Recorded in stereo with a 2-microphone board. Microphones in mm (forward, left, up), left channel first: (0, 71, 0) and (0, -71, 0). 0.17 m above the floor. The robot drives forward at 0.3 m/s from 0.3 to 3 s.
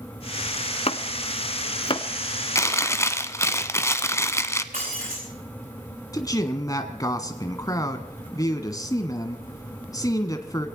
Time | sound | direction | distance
0.9 | chopping | 50° left (ahead or behind) | 0.7 m
2.5 | chewing | 20° left (ahead or behind) | 0.8 m
4.7 | breaking glass | 70° right (ahead or behind) | 7.5 m
6.1 | a man speaking | 25° left (ahead or behind) | 1.3 m